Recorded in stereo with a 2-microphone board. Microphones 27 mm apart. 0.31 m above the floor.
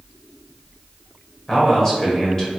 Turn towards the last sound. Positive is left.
turn(degrees=15)  # may be behind; listen again after turning